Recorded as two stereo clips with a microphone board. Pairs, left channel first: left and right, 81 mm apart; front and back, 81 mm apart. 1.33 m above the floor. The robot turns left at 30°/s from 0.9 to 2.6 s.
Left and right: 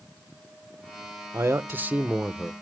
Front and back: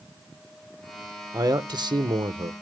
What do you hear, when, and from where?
1.3 s a man speaking: 145° right, 1.2 m; by 2.5 s straight behind, 1.2 m